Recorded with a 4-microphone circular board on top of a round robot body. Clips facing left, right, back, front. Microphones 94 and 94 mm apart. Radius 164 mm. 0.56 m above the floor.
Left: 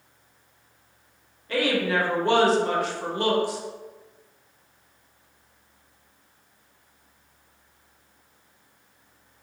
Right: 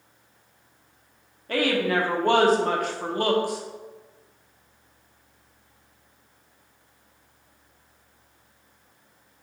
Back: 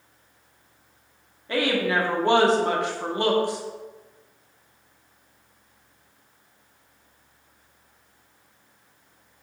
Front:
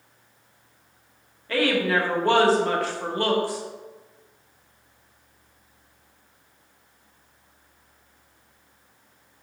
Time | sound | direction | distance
1.5 | a woman speaking | 115° right | 1.8 m